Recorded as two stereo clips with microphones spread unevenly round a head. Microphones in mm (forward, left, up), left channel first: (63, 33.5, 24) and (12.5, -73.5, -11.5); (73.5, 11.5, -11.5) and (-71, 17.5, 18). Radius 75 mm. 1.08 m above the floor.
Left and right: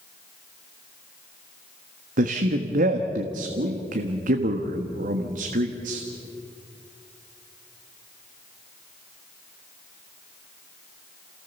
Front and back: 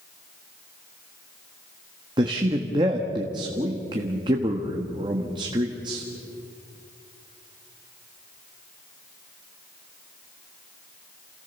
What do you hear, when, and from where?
2.2 s a man speaking: 120° right, 1.4 m